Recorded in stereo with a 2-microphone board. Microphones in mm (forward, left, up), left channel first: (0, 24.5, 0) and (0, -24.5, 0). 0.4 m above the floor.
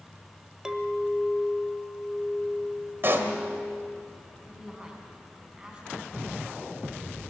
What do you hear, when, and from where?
0.7 s a clink: 15° right (ahead or behind), 1.2 m
3.0 s a pop: 50° right (ahead or behind), 1.7 m
4.4 s a woman speaking: 20° right (ahead or behind), 4 m